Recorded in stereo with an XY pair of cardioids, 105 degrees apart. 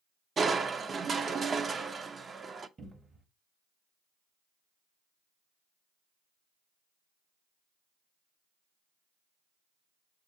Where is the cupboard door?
30° right, 1.2 m.